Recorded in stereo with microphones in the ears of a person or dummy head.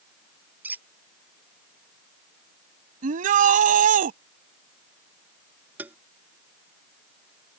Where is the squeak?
10° right (ahead or behind).